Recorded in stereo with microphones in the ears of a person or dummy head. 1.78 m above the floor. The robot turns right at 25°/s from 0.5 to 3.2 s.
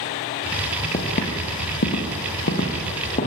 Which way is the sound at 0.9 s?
30° left (ahead or behind).